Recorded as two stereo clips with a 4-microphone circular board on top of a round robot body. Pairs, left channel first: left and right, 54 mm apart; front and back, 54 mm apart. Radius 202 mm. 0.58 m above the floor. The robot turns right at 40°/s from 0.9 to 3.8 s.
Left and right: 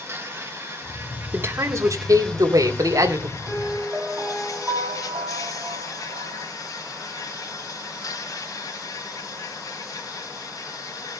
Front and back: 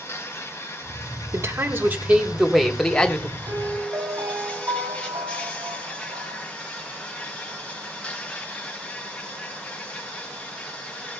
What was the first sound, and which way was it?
An insect, 45° right.